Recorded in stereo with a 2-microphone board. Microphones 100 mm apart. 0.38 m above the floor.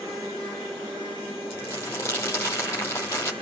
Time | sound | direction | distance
1.5 | crumpling | 30° left (ahead or behind) | 3.5 m